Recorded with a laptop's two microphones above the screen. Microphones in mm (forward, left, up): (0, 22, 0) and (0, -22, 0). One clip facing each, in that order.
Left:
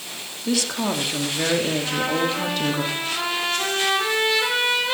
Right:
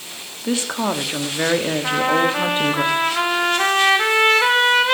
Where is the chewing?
I don't hear chewing.